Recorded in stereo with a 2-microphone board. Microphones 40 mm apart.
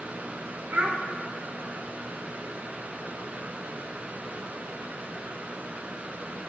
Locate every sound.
0.7 s a child speaking: 30° right (ahead or behind), 0.7 m